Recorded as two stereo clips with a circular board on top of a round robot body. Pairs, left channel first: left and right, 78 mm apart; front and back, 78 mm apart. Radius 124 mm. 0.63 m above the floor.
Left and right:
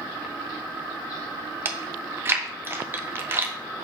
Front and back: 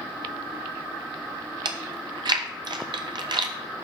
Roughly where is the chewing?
Behind right.